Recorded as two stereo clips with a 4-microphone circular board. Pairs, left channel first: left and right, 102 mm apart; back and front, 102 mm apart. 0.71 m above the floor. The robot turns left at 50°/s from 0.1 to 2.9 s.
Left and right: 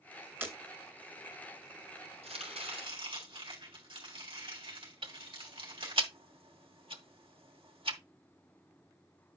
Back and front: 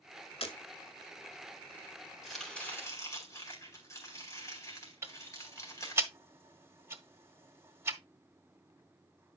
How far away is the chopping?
About 4 m.